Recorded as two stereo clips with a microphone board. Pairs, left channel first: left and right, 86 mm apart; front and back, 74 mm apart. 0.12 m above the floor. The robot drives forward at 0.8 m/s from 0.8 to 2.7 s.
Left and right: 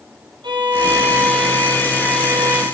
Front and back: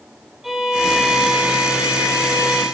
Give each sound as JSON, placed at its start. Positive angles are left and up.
{"t": 0.4, "sound": "a violin", "azimuth_deg": -95, "distance_m": 2.5}